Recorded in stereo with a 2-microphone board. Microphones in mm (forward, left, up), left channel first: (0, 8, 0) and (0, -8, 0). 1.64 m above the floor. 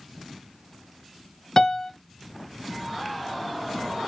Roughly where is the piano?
Left.